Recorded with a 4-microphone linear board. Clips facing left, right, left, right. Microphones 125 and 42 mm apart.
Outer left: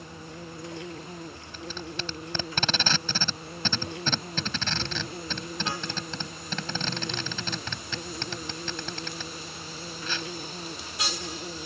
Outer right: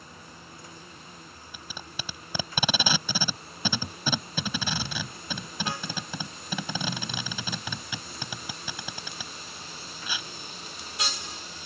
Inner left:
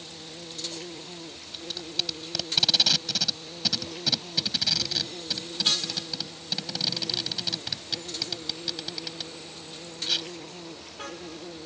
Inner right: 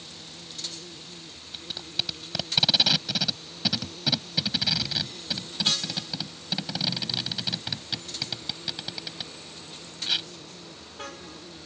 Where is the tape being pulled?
10° right (ahead or behind).